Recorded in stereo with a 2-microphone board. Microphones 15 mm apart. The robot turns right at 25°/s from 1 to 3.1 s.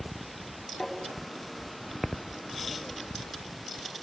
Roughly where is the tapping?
Left.